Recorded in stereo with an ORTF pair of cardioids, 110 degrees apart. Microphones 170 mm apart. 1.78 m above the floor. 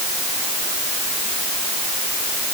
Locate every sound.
Only background noise.